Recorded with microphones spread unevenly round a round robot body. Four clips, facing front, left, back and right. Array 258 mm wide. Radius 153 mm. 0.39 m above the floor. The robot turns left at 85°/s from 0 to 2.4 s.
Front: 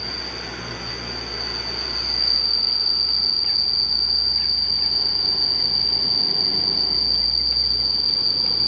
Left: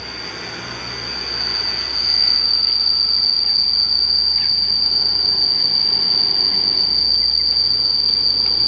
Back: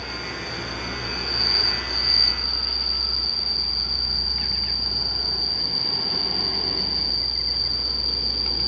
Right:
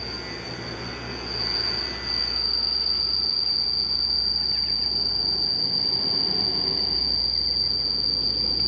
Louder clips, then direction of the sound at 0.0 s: Left 3 dB, back 1 dB; 35° right.